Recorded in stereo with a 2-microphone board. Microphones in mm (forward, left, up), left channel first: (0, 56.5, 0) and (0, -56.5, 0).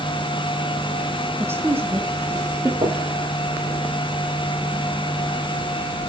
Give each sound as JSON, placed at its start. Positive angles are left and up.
{"t": 1.4, "sound": "a woman speaking", "side_deg": -20, "distance_m": 5.0}
{"t": 2.8, "sound": "knocking", "side_deg": -50, "distance_m": 5.0}